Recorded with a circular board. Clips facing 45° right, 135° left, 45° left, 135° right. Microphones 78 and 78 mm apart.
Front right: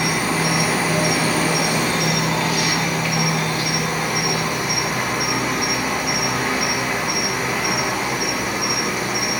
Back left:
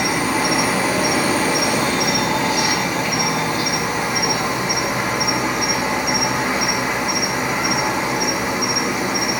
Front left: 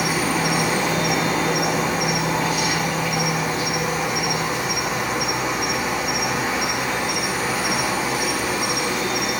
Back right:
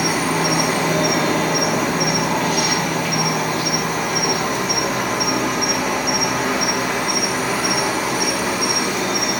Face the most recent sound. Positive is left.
turn(degrees=-155)